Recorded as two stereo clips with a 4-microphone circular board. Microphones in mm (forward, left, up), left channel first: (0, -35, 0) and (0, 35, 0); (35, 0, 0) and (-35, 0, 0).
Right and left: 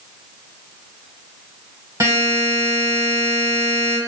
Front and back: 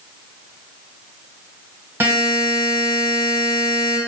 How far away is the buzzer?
About 1.0 m.